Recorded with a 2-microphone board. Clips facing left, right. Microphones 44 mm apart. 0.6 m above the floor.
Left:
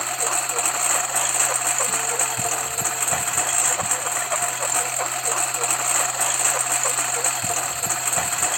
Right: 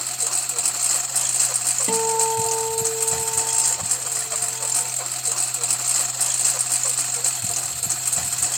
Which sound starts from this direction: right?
A guitar, at 1.9 s.